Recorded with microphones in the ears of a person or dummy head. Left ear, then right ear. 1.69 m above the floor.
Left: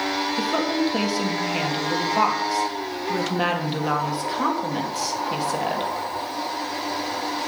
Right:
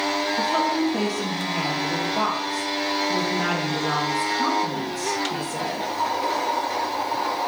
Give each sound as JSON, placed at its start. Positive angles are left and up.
{"t": 0.4, "sound": "a woman speaking", "side_deg": 40, "distance_m": 1.8}